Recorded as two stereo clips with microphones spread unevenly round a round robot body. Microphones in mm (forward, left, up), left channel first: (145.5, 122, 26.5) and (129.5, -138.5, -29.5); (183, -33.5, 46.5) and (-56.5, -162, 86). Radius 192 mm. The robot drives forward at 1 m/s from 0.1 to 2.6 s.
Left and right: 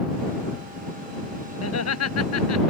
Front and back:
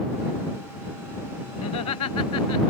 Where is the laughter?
60° left; by 2.7 s 70° left.